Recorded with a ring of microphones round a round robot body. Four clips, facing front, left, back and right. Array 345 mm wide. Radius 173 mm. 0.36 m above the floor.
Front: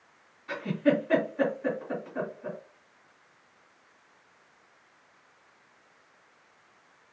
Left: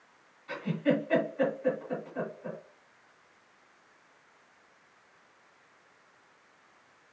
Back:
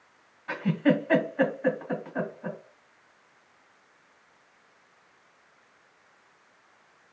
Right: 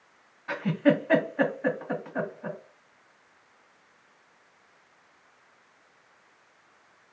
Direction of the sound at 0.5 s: 120° right.